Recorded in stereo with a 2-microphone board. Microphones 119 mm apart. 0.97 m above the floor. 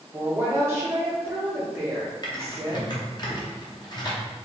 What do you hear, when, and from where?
0.1 s a woman speaking: 20° right (ahead or behind), 0.9 m
2.2 s typing on a keyboard: 40° left (ahead or behind), 0.6 m